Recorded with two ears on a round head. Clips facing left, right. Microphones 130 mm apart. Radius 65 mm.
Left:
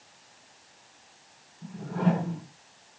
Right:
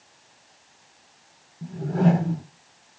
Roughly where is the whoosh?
Right.